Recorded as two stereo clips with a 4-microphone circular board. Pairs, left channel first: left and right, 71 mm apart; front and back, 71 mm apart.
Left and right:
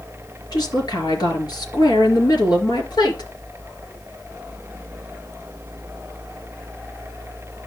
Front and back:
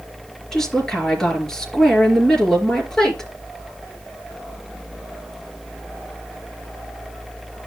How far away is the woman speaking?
About 4.5 m.